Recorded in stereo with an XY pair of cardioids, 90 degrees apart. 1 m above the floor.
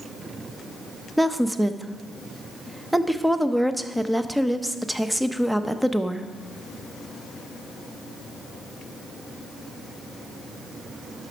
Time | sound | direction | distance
1.2 | a woman speaking | 5° right | 0.6 m